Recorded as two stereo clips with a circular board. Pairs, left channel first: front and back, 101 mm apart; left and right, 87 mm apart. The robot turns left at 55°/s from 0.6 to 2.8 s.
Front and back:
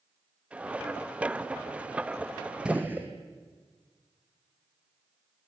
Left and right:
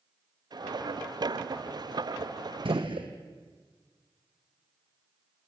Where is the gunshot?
100° right, 2.5 m; by 3.1 s 110° right, 2.5 m.